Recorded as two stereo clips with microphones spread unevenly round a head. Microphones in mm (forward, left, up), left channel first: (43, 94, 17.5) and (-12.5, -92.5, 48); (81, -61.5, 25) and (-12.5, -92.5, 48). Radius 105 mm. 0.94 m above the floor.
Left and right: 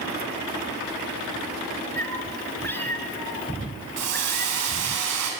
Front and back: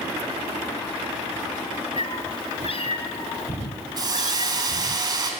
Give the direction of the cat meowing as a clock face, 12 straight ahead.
12 o'clock.